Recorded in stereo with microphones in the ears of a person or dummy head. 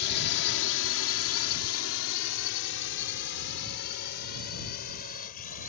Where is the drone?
55° left (ahead or behind); by 5.7 s 50° left (ahead or behind).